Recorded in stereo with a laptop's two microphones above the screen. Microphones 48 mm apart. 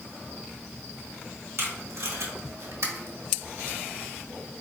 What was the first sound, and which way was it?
Tape being pulled, 60° right (ahead or behind).